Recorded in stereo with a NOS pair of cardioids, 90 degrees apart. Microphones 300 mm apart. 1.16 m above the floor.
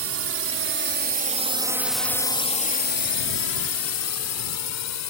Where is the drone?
55° right; by 5.1 s 65° left.